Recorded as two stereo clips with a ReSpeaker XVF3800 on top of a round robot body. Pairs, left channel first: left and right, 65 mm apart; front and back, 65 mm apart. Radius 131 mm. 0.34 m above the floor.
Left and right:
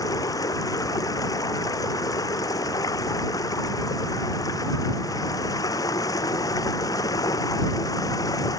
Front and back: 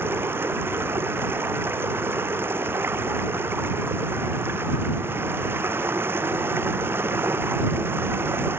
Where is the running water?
120° left.